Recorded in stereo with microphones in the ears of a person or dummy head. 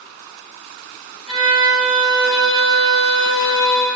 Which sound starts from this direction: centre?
A violin, at 1.3 s.